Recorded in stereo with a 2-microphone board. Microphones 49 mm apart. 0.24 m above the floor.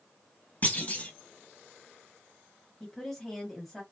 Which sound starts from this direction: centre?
A woman speaking, at 2.8 s.